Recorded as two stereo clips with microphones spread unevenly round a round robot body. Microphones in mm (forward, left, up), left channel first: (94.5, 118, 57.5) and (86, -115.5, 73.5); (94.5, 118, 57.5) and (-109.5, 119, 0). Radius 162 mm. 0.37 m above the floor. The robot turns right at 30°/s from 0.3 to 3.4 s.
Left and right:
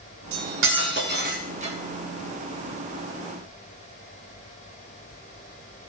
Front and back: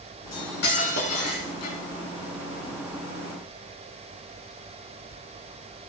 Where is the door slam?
No door slam in this recording.